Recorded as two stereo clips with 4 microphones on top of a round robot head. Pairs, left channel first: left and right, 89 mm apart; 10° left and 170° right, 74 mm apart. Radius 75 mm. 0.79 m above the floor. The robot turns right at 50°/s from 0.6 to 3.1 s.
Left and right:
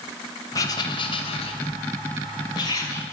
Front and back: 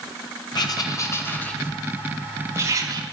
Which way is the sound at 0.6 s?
40° left.